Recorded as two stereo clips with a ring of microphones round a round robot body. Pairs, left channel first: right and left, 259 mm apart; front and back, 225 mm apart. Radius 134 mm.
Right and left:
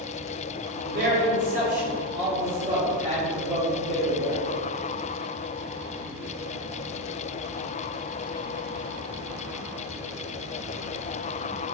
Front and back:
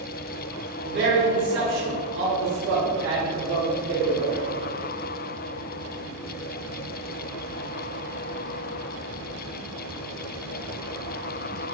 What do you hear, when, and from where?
0.8 s a man speaking: 145° left, 1.6 m; by 4.4 s 160° left, 3.5 m